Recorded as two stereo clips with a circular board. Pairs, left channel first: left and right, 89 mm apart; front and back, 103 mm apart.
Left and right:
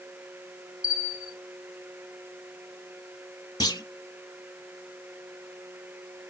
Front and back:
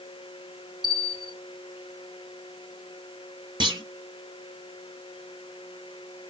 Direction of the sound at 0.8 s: 140° left.